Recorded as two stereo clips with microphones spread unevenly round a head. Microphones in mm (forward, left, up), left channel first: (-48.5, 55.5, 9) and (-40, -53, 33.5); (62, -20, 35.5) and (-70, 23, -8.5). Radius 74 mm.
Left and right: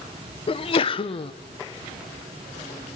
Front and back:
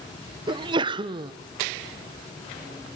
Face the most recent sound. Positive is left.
turn(degrees=115)